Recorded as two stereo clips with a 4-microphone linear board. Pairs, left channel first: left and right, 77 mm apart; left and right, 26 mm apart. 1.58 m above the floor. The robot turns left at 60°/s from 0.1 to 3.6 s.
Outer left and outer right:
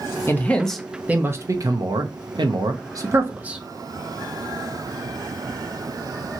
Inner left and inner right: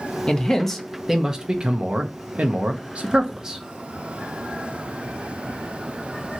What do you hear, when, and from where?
0.3 s a man speaking: 35° left, 0.6 m; by 3.6 s 165° right, 0.6 m